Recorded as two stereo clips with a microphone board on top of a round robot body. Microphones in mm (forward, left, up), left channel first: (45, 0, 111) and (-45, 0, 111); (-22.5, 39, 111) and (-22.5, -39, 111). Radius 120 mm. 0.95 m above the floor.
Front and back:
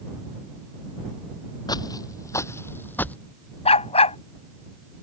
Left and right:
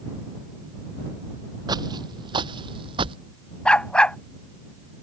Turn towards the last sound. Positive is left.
turn(degrees=10)